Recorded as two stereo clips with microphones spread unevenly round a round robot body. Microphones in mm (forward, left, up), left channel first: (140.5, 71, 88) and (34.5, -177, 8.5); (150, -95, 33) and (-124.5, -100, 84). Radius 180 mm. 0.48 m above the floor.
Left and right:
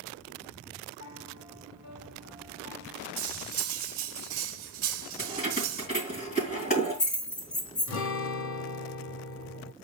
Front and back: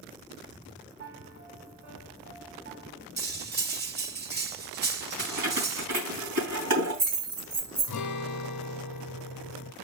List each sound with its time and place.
1.0 s a piano: 125° left, 3 m
3.2 s cutlery clinking: 120° right, 1.0 m
5.2 s keys jangling: 135° left, 4 m
7.9 s a guitar: 20° left, 0.7 m